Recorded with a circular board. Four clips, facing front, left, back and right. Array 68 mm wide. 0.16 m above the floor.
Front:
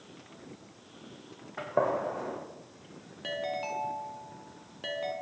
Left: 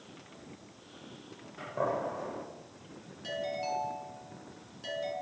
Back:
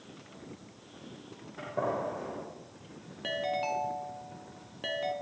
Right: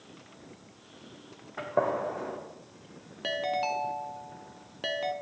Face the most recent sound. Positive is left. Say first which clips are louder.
# right 5 dB, back 2 dB
turn(degrees=-100)